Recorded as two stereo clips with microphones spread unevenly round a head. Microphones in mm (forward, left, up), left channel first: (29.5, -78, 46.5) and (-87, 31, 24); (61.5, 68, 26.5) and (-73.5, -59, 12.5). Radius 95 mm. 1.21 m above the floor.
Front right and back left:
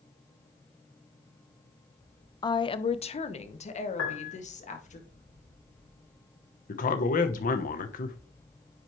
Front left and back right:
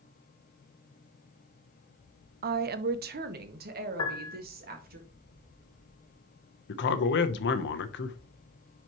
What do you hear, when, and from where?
2.4 s a woman speaking: 115° right, 0.5 m; by 5.0 s 90° right, 2 m
4.0 s a piano: 30° right, 1.9 m
6.7 s a man speaking: 5° left, 0.9 m